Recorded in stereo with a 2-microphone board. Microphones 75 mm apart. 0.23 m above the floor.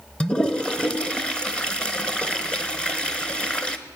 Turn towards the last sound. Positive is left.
turn(degrees=10)  # may be behind; listen again after turning